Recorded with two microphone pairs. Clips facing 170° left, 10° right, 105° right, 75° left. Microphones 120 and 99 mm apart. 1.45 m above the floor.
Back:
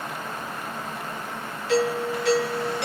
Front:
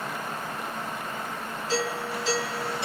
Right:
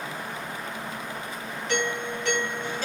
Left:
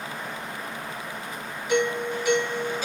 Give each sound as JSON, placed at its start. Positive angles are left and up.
{"t": 1.7, "sound": "a doorbell", "azimuth_deg": 155, "distance_m": 3.0}